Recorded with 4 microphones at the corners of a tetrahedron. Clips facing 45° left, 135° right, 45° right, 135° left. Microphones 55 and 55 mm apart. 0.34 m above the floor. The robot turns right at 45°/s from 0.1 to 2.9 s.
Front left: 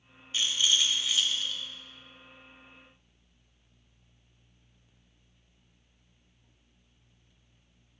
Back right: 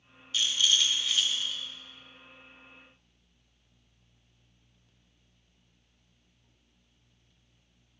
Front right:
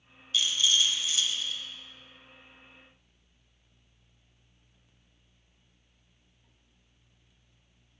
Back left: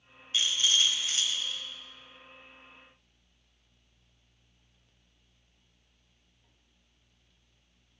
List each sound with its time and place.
0.3 s a rattle: 95° left, 1.4 m; by 1.6 s 155° left, 1.4 m